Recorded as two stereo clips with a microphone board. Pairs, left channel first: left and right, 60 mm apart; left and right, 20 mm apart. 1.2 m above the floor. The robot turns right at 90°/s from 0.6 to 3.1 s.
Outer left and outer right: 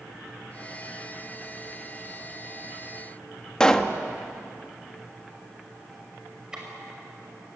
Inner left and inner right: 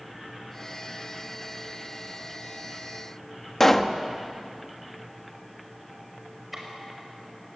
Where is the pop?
15° left (ahead or behind), 1.1 m.